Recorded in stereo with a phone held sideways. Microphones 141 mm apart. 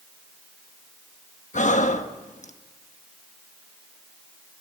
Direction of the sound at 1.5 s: 60° left (ahead or behind).